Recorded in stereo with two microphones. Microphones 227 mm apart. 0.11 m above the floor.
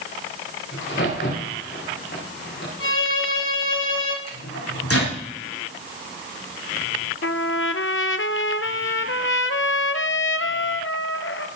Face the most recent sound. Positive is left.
turn(degrees=60)  # may be behind; listen again after turning